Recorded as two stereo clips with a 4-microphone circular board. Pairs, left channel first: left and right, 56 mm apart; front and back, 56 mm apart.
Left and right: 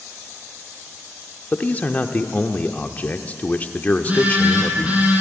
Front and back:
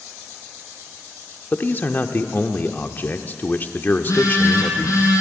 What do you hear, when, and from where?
1.5 s a man speaking: 40° left, 0.9 m
3.9 s a phone buzzing: 25° right, 5 m